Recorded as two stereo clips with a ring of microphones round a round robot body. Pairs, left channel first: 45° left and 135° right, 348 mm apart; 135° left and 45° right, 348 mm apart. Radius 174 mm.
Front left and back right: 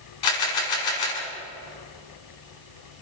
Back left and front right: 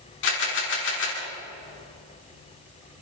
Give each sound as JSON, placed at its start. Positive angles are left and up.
{"t": 0.2, "sound": "a camera shutter", "azimuth_deg": 75, "distance_m": 7.5}